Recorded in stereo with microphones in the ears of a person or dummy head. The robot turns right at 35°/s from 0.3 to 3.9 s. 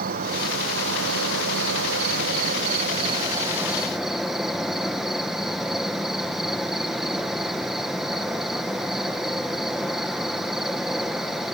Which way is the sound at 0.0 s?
125° right.